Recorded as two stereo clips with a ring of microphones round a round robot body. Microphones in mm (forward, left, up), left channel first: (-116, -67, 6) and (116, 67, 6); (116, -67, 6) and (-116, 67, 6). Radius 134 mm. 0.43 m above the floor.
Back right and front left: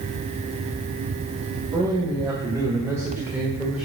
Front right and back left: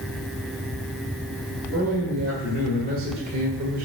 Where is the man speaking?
100° left, 2 m; by 3.8 s 120° left, 1.5 m.